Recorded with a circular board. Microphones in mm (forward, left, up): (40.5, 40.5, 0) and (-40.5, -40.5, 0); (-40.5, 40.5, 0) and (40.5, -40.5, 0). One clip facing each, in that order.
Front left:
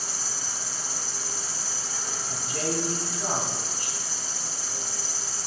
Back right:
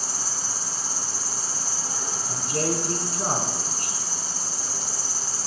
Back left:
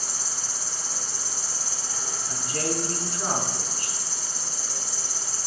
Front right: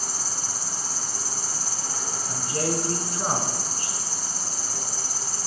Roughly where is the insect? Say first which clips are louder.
Back right 3 dB, front right 3 dB; right.